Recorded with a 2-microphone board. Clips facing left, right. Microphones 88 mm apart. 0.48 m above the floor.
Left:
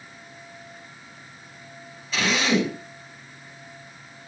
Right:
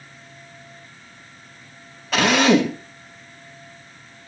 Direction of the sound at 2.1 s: 70° right (ahead or behind).